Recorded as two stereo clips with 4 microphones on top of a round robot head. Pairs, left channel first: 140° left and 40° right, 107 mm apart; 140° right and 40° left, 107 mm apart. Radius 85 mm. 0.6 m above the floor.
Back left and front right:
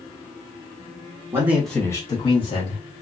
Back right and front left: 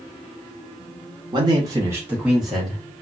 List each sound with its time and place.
1.3 s a man speaking: 15° left, 0.8 m; by 2.8 s 130° left, 1.4 m